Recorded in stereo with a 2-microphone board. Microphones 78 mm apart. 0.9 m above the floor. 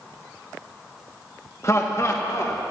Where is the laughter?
40° left (ahead or behind), 1.0 m.